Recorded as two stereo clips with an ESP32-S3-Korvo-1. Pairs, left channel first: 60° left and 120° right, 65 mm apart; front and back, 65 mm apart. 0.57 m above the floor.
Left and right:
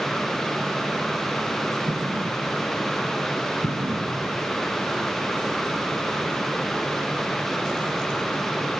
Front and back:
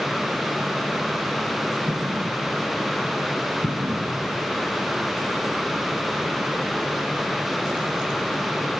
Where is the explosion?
140° right.